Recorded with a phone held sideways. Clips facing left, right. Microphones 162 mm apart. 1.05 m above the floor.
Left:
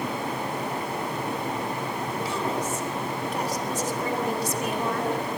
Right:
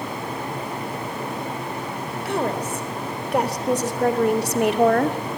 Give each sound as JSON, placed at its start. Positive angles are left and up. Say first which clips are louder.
{"t": 2.2, "sound": "a woman speaking", "louder": "right 6 dB", "side_deg": -65, "distance_m": 3.5}